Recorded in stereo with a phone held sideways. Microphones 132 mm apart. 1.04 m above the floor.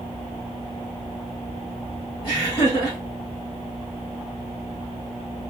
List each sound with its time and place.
2.2 s laughter: 40° left (ahead or behind), 1.8 m